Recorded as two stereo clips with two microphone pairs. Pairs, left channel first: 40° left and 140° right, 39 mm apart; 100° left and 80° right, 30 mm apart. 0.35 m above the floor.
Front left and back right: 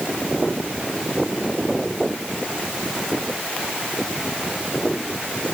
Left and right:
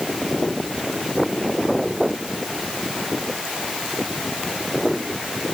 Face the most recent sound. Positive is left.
No sound to turn to.